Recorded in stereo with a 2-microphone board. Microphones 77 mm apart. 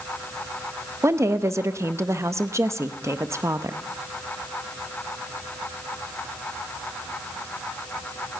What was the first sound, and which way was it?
A woman speaking, 35° right (ahead or behind).